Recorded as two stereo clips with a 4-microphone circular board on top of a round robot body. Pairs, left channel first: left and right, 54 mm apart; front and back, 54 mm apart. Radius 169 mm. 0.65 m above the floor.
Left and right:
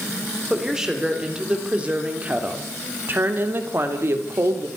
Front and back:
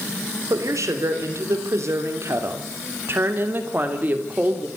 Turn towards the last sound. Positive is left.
turn(degrees=-120)